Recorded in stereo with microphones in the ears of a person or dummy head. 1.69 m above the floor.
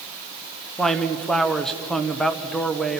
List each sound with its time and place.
0.8 s a man speaking: 5° left (ahead or behind), 1.1 m